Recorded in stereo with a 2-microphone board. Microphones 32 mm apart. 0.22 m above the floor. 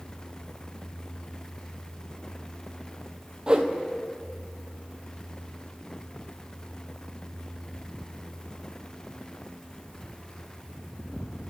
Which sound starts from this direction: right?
A whoosh, at 3.5 s.